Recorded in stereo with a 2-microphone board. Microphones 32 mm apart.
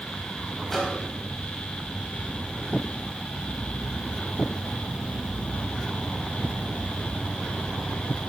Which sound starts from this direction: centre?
A microwave, at 0.7 s.